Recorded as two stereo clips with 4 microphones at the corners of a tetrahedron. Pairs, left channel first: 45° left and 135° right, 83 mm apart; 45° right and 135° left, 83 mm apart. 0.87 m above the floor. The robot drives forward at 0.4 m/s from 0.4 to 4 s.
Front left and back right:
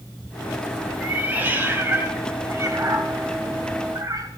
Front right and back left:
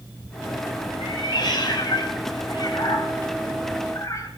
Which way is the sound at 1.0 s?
65° right.